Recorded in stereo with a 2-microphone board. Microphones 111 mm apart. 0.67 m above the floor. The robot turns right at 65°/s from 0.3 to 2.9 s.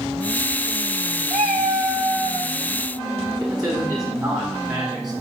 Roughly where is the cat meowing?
Behind right.